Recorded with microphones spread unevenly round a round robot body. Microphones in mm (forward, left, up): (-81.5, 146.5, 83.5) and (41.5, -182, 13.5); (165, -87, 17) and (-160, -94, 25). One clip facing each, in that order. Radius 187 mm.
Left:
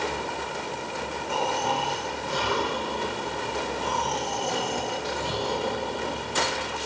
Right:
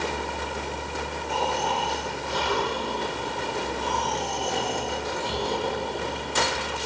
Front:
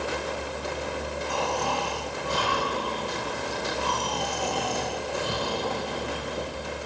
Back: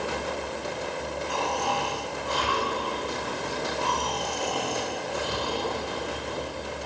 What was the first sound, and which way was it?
Snoring, 20° left.